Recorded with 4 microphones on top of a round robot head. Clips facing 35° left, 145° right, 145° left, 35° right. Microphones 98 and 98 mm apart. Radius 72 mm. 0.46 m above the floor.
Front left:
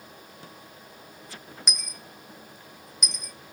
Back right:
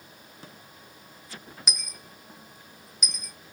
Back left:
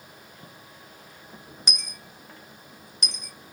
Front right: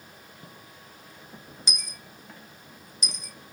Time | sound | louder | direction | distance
1.7 | a dropped coin | even, back left 2 dB | 130° left | 0.5 m